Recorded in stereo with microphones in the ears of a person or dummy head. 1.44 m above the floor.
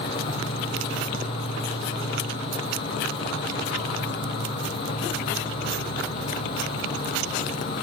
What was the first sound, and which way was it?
An insect, 55° left (ahead or behind).